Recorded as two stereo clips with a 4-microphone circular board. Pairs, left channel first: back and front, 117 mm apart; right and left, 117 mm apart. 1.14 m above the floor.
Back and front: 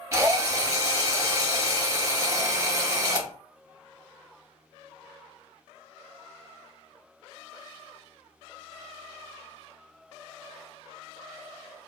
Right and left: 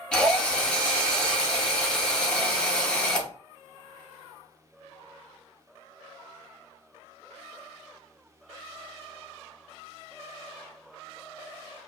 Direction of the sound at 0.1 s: 20° right.